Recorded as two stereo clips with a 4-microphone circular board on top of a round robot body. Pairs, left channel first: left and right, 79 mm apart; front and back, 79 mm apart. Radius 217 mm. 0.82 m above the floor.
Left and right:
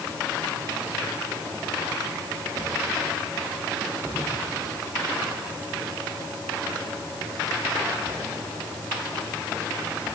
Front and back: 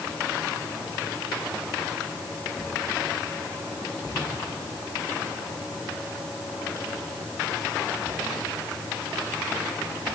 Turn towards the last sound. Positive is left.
No sound to turn to.